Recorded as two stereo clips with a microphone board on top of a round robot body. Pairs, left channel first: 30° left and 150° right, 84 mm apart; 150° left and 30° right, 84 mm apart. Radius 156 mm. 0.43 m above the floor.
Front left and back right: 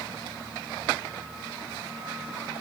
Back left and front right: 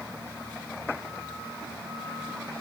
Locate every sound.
Only background noise.